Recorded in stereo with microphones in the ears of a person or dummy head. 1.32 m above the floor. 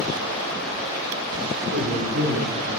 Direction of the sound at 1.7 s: 85° right.